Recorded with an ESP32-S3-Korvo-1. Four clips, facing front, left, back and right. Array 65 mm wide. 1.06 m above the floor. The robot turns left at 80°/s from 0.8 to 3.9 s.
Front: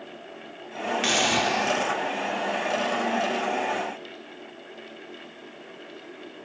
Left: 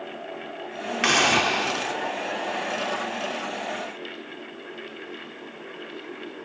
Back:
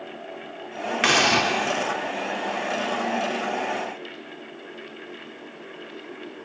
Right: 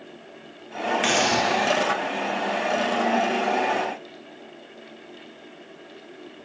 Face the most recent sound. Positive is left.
turn(degrees=-75)